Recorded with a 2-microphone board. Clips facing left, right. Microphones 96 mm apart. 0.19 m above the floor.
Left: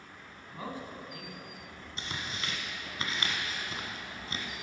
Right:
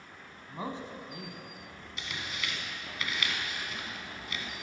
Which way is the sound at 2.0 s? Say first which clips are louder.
Even; 35° left (ahead or behind).